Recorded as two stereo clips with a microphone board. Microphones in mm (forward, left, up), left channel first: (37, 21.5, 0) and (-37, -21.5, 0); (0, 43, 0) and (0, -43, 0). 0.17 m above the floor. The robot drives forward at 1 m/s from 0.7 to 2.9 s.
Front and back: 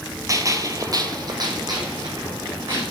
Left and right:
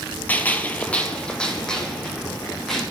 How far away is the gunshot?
About 0.8 m.